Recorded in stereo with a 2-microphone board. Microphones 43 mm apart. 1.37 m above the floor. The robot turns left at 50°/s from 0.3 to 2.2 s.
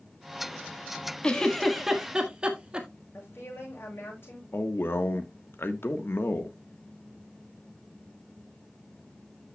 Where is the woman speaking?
65° left (ahead or behind), 7 m.